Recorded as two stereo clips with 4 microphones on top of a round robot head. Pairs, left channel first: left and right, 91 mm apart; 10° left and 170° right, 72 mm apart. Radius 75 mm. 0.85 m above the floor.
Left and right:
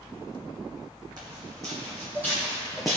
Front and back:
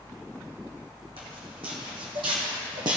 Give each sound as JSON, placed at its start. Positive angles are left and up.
{"t": 1.2, "sound": "footsteps", "azimuth_deg": -145, "distance_m": 1.9}